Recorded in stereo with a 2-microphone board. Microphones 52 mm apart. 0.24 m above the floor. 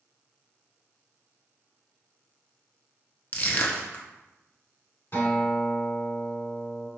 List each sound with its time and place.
3.3 s crushing: 40° left (ahead or behind), 0.5 m
5.1 s a guitar: 50° left (ahead or behind), 1.7 m